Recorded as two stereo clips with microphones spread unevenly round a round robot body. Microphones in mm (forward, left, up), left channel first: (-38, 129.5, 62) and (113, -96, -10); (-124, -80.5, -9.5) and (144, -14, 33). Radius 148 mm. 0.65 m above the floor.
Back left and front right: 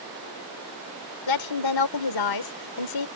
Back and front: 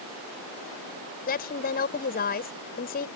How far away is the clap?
I don't hear a clap.